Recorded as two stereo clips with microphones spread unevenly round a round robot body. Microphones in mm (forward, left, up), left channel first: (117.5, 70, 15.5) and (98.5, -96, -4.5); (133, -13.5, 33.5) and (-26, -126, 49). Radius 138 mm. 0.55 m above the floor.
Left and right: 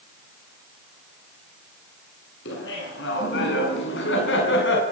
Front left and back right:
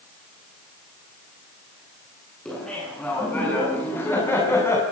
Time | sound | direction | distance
2.5 | laughter | 120° left | 7.5 m